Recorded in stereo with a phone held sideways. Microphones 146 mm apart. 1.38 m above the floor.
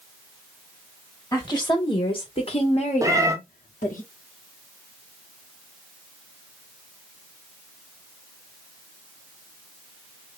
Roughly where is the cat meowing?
Right.